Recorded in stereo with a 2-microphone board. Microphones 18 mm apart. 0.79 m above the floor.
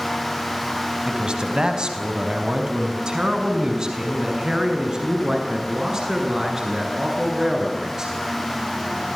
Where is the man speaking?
60° right (ahead or behind), 4.5 m; by 8.2 s 35° right (ahead or behind), 11 m.